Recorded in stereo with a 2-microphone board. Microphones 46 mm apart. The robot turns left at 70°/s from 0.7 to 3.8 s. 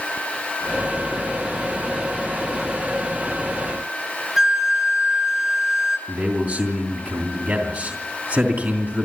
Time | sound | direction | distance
4.4 | a flute | 10° right (ahead or behind) | 1.9 m
6.1 | a man speaking | 45° right (ahead or behind) | 3 m